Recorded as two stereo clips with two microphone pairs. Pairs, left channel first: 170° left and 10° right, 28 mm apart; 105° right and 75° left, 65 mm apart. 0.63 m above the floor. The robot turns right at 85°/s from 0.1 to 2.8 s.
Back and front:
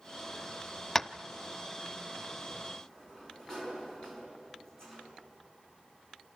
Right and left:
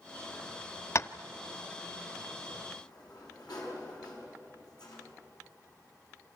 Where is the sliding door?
125° right, 6.5 m; by 5.1 s 120° right, 6.5 m.